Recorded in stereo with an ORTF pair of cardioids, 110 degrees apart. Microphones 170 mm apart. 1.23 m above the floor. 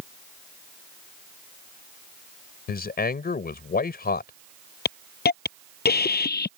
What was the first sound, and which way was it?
A man speaking, 65° left.